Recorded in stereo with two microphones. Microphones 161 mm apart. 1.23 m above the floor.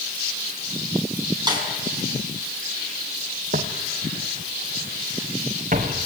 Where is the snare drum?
25° right (ahead or behind), 6 m.